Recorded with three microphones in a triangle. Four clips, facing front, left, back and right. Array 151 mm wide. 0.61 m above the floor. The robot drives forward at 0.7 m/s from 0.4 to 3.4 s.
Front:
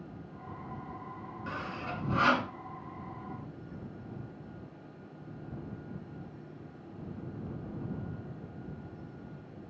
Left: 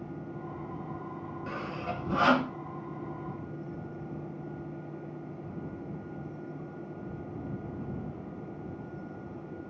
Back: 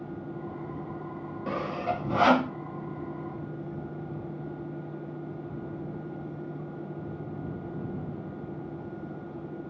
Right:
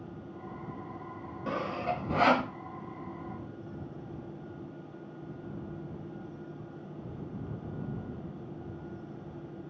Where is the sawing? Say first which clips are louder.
Right 5 dB, back 9 dB; 145° right, 0.8 m; by 2.5 s 160° right, 1.5 m.